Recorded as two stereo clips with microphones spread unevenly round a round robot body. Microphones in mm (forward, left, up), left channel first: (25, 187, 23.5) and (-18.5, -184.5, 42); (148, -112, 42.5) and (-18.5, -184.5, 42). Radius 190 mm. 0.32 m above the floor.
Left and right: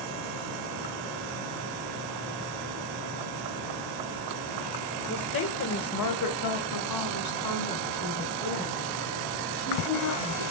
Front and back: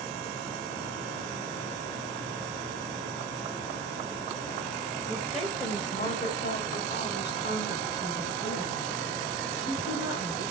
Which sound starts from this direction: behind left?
A woman speaking, at 5.1 s.